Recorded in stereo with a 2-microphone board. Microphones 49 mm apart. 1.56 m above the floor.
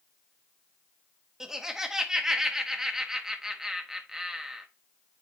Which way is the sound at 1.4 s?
10° right (ahead or behind).